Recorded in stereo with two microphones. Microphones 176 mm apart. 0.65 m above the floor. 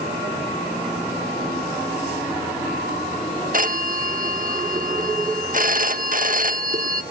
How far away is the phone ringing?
About 1.0 m.